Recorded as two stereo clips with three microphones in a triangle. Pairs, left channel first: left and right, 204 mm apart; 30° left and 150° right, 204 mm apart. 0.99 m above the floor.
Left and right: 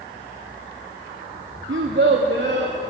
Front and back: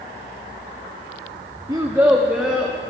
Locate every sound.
1.7 s a child speaking: 80° right, 0.7 m; by 2.8 s 60° right, 1.3 m